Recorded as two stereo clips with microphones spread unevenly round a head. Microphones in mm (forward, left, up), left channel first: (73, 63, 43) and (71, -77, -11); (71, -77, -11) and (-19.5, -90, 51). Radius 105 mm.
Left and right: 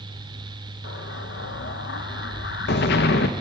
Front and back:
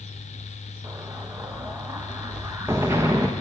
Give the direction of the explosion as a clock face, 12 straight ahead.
8 o'clock.